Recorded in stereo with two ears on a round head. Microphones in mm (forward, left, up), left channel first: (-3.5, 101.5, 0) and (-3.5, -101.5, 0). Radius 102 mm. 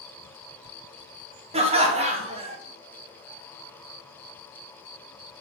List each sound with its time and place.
1.5 s laughter: 30° right (ahead or behind), 0.7 m